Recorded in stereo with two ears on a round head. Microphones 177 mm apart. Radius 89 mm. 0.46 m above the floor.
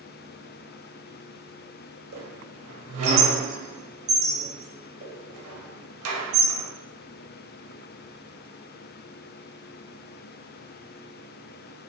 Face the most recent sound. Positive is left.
turn(degrees=-80)